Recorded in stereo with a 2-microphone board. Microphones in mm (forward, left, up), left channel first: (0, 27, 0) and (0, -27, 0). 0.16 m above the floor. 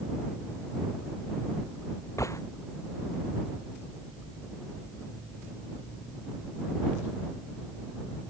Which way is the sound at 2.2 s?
75° left (ahead or behind).